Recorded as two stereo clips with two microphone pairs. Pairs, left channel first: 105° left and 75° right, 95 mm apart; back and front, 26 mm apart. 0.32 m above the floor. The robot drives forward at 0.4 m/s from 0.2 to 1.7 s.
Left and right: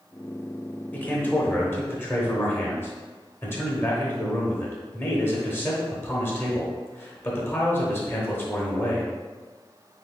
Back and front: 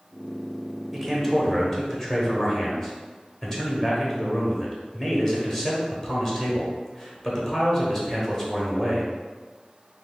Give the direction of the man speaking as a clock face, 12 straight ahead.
10 o'clock.